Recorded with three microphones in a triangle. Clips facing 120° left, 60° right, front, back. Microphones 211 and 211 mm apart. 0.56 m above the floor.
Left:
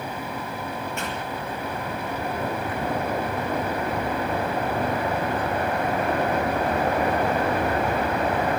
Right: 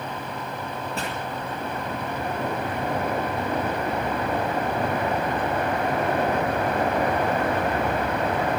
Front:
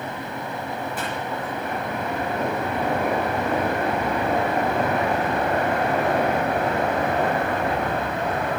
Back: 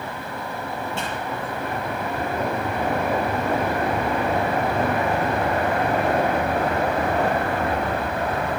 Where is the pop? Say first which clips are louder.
Even, even; 115° right, 7.5 m.